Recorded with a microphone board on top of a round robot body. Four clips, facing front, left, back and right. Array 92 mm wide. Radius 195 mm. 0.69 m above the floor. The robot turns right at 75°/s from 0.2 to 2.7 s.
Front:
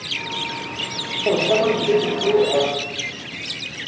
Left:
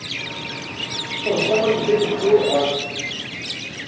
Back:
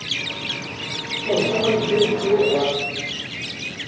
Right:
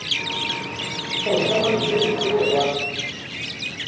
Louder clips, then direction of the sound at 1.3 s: Left 2 dB, front 2 dB; 10° right.